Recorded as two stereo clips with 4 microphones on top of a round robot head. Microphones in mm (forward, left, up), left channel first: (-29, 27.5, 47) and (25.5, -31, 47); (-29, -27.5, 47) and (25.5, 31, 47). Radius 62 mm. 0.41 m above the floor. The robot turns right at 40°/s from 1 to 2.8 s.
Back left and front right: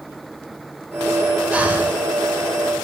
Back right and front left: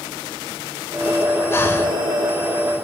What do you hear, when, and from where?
1.5 s breathing: 110° right, 1.0 m; by 2.0 s 90° right, 1.0 m